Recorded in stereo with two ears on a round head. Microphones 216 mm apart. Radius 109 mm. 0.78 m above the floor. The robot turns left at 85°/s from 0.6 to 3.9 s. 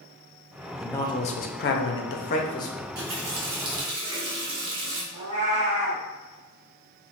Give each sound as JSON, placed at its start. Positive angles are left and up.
{"t": 0.8, "sound": "a man speaking", "azimuth_deg": 180, "distance_m": 0.6}
{"t": 2.8, "sound": "a running tap", "azimuth_deg": -30, "distance_m": 0.9}
{"t": 5.1, "sound": "a cat meowing", "side_deg": -35, "distance_m": 1.9}